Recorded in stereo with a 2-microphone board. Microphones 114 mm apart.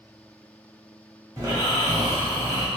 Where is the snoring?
30° right (ahead or behind), 1.2 m.